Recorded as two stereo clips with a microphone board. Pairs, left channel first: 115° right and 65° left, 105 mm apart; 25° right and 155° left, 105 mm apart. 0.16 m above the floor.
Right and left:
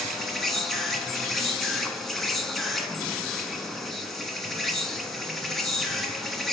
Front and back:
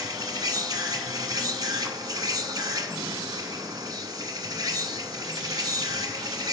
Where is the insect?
160° left, 0.7 m.